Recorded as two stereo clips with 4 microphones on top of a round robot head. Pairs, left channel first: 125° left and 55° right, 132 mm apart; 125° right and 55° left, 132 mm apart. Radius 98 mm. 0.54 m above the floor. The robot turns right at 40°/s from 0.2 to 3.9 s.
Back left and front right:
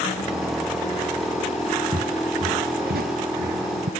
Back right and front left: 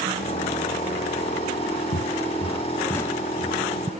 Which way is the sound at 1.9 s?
100° right.